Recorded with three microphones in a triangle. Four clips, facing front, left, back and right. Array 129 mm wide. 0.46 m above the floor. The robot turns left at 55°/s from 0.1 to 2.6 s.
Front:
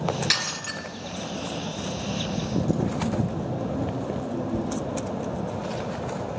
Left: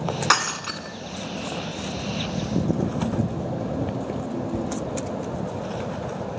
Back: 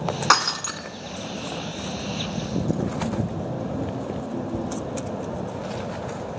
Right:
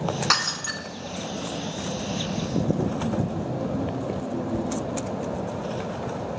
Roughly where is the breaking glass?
Behind left.